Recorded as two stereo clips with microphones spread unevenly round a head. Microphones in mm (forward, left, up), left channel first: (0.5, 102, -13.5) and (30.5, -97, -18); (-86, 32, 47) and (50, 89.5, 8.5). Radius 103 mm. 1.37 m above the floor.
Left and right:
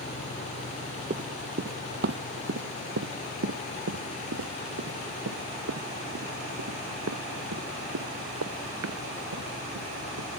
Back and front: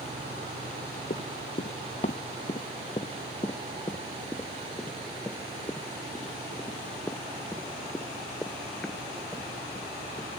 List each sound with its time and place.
1.1 s running footsteps: 135° right; by 10.3 s 75° right